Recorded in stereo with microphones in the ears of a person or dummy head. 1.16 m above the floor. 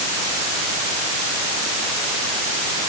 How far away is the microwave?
No microwave in this recording.